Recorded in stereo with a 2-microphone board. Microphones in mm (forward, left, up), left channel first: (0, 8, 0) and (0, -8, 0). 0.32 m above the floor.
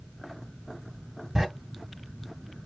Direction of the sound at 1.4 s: 35° right (ahead or behind).